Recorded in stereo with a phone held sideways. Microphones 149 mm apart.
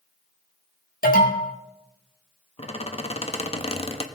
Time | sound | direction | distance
1.0 | an alarm | 80° left | 2.5 m
2.6 | a squeak | 45° left (ahead or behind) | 1.0 m